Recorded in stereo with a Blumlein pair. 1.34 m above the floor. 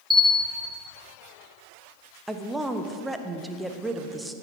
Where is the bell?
5° right, 2 m.